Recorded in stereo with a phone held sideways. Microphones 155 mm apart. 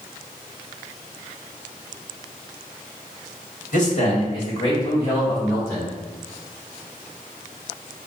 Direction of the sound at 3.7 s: 55° left (ahead or behind).